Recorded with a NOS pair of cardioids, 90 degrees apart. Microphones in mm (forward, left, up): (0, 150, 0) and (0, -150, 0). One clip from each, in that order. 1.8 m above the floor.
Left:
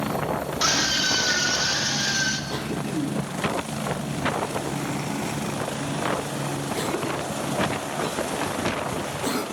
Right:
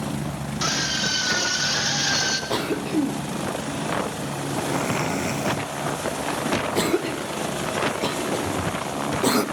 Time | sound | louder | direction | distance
0.6 | a scream | left 1 dB | 20° left | 3.5 m
2.5 | a cough | right 5 dB | 40° right | 1.4 m